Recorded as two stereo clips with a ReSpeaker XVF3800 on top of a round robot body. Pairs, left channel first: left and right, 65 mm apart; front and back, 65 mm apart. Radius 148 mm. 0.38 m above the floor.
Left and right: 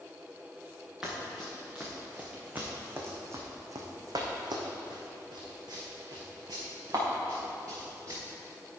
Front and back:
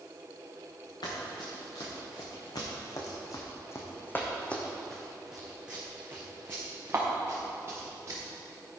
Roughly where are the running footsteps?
Ahead.